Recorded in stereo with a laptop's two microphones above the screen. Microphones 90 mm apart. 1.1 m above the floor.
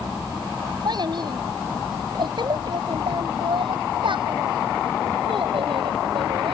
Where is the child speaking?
55° right (ahead or behind); by 6.5 s 85° right.